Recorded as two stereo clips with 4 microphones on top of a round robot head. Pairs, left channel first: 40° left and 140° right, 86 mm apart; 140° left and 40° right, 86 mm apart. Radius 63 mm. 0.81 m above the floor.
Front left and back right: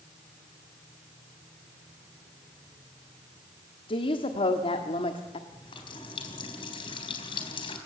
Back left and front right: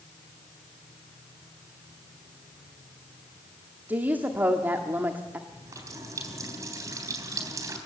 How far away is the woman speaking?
About 1.5 m.